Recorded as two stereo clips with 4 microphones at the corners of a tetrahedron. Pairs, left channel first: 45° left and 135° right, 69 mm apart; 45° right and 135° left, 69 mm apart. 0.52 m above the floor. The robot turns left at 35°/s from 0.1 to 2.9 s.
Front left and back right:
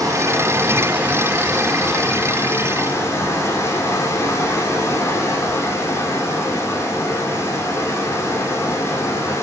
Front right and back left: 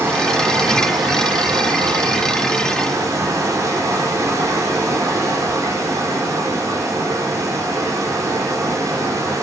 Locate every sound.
0.0 s running water: 170° right, 4 m; by 9.4 s 90° left, 4 m